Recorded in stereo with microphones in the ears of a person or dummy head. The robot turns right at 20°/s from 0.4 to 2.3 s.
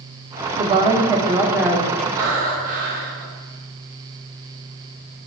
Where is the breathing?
50° right (ahead or behind), 1.4 m; by 3.2 s 45° right (ahead or behind), 1.4 m.